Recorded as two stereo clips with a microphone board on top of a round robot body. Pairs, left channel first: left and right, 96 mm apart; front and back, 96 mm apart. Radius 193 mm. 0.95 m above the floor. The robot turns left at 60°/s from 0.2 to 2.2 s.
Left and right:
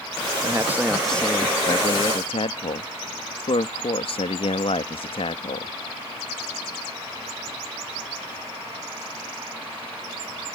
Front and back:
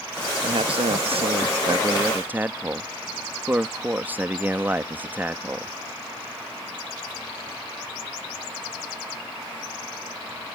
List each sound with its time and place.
0.4 s a man speaking: 145° right; by 5.7 s 110° left